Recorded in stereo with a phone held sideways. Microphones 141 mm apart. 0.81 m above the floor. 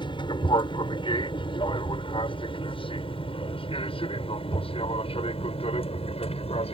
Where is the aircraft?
35° left (ahead or behind); by 6.7 s 45° left (ahead or behind).